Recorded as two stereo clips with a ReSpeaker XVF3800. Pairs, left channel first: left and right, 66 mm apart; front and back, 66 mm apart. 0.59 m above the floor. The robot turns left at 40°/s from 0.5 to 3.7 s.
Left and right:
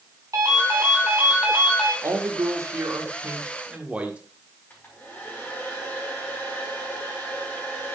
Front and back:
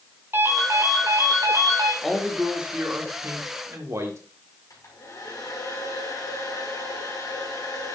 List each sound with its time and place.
0.3 s a ringtone: 125° right, 3.5 m; by 1.9 s 175° left, 3.5 m
2.0 s a man speaking: 85° right, 1.9 m; by 4.2 s 155° right, 1.9 m
4.7 s a hair dryer: 30° left, 4.5 m